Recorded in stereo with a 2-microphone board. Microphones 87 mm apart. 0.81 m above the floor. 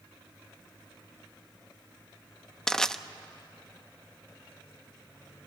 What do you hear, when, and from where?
2.7 s crushing: 5° left (ahead or behind), 0.6 m